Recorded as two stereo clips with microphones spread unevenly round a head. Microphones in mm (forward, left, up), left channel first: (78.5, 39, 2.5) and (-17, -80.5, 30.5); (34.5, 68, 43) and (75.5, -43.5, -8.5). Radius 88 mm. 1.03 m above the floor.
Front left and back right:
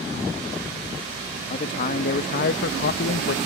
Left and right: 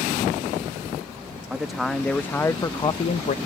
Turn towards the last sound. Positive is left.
turn(degrees=75)